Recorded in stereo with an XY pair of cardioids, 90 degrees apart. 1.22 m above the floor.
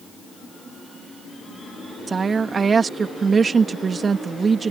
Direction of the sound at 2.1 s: 40° right.